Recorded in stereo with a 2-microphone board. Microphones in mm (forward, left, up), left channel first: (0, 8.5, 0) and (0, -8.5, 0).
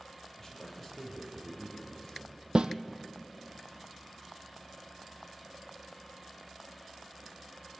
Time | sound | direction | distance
0.4 | a man speaking | 10° left (ahead or behind) | 6 m
2.5 | a snare drum | 70° right (ahead or behind) | 0.9 m